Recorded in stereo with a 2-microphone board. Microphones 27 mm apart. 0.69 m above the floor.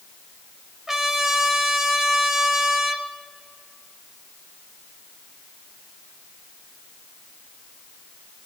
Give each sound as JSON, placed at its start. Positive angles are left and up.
{"t": 0.9, "sound": "a trumpet", "side_deg": -20, "distance_m": 1.1}